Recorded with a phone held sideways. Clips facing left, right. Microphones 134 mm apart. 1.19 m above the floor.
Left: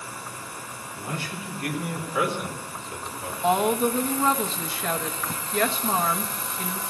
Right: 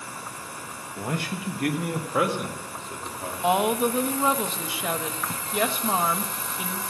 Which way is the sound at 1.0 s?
65° right (ahead or behind).